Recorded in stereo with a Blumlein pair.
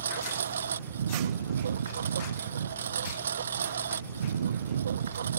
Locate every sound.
0.0 s a lawn mower: 65° right